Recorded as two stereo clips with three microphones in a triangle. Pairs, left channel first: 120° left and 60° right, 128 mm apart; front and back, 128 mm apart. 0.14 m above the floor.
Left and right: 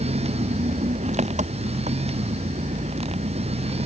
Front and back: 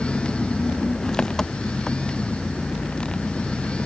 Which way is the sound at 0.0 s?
85° right.